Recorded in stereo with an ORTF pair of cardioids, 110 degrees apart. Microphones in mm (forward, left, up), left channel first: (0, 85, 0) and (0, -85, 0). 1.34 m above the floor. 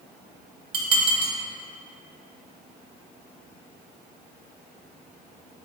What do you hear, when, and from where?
0.7 s dishes clattering: 35° right, 0.8 m